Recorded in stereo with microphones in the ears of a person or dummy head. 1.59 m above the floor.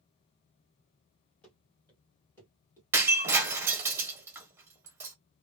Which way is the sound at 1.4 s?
5° left (ahead or behind).